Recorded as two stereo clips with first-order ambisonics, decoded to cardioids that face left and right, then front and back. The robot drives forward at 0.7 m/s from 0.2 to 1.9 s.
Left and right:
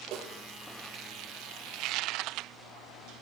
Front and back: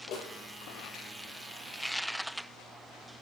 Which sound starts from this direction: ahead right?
A snare drum, at 0.1 s.